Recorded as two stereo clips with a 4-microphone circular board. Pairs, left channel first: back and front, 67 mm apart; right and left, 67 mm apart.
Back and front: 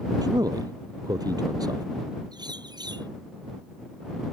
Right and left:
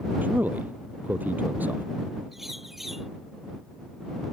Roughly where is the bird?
Ahead.